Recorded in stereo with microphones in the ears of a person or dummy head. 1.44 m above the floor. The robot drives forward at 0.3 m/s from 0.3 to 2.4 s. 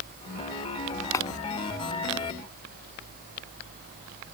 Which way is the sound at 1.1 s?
15° left (ahead or behind).